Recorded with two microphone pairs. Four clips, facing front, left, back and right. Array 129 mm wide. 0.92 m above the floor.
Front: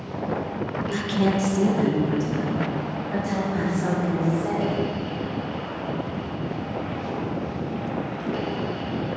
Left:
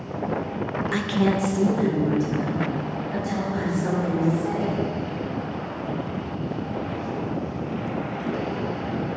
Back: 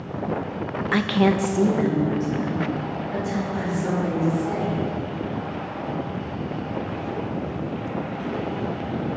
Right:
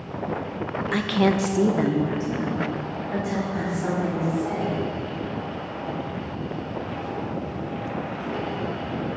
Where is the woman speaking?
175° right, 0.5 m; by 4.8 s 55° right, 2.5 m.